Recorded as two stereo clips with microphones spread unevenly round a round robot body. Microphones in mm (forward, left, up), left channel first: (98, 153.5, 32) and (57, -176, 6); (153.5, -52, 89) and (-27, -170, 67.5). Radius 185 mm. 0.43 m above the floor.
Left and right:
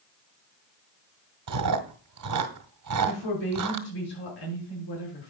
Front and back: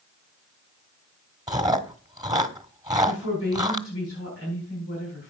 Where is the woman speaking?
70° left, 5.5 m.